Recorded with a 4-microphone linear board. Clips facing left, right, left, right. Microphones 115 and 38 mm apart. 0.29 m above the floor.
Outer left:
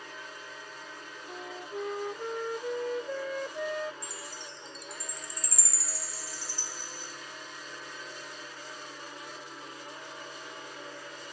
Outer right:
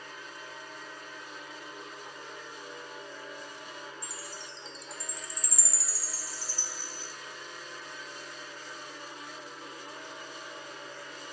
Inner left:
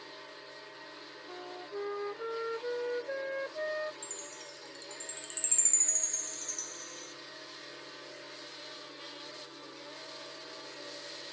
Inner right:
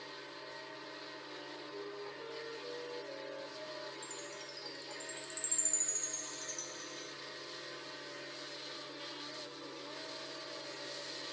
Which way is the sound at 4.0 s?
55° left (ahead or behind).